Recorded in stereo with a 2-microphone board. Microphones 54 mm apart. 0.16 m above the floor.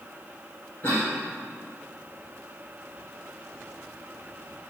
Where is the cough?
45° left (ahead or behind), 3 m.